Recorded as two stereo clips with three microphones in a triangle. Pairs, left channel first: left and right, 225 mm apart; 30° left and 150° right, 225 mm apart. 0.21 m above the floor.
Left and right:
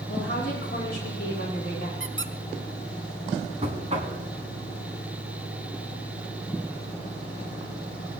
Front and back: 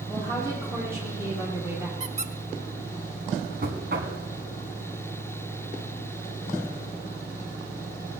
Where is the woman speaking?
135° left, 7.5 m; by 1.9 s 130° left, 5.5 m.